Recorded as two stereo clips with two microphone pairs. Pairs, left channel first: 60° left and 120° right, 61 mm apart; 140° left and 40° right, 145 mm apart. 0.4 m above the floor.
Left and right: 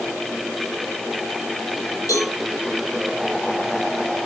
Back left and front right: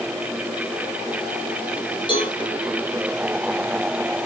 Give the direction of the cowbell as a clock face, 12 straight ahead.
9 o'clock.